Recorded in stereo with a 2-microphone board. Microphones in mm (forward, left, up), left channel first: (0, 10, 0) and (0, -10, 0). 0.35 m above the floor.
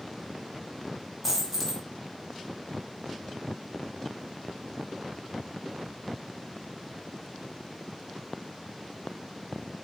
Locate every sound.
1.2 s a dropped coin: 5° right (ahead or behind), 0.9 m